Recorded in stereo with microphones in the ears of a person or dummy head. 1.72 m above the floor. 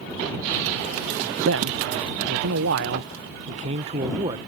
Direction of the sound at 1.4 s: 75° right (ahead or behind).